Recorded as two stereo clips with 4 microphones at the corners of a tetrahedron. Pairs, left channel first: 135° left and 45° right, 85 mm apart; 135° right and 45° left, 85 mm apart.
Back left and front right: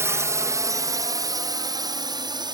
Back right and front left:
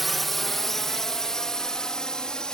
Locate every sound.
0.0 s a drone: 45° right; by 2.5 s 55° right